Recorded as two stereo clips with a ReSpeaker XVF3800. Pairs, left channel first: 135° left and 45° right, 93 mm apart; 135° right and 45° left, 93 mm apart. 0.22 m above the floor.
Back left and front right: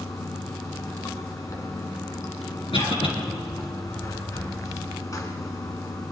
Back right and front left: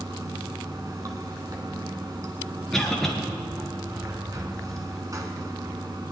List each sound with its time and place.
0.0 s running water: 90° left, 1.8 m
2.7 s a cough: 140° left, 3.5 m